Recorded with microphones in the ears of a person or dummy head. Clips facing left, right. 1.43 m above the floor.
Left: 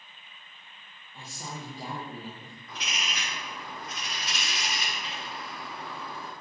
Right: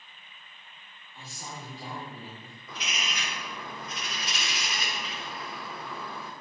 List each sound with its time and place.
1.1 s a woman speaking: 50° left (ahead or behind), 2 m; by 2.6 s 15° left (ahead or behind), 1.2 m
2.7 s a bird: 70° right (ahead or behind), 1.1 m